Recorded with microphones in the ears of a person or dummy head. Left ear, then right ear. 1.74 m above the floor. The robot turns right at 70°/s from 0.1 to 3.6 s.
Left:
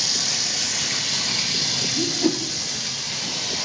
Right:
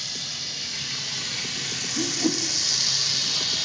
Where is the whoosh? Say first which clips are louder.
Left 3 dB; 10° right (ahead or behind), 0.5 m; by 2.4 s 5° left (ahead or behind), 0.5 m.